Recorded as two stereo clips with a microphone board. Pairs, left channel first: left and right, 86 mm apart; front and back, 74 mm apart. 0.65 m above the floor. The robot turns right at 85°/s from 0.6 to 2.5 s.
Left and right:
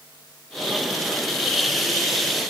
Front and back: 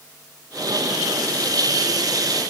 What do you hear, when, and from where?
Only background noise.